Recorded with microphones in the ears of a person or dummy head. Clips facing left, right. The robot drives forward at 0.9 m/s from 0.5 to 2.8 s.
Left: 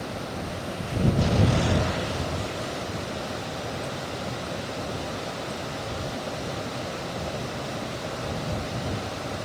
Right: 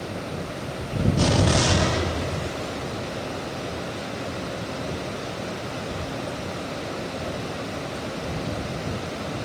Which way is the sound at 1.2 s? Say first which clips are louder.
Right 5 dB; 85° right.